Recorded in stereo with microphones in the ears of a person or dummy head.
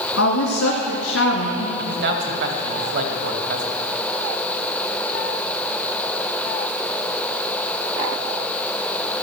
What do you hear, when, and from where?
0.1 s a woman speaking: 80° left, 2.5 m
1.8 s a man speaking: 60° right (ahead or behind), 2 m